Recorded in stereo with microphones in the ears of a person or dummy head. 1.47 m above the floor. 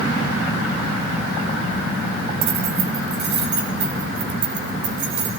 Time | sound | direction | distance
2.4 | keys jangling | 40° right (ahead or behind) | 3.5 m